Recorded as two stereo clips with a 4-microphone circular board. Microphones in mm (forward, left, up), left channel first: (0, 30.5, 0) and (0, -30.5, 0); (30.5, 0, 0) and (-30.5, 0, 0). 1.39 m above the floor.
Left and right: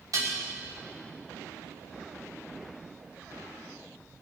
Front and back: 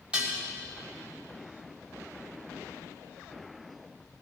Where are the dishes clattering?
110° right, 3 m.